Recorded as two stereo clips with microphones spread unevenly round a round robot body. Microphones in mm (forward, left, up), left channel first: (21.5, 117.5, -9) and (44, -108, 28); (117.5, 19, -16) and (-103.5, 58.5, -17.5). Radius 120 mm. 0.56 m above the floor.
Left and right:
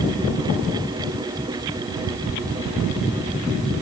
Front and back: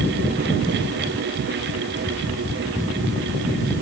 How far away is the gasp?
I don't hear a gasp.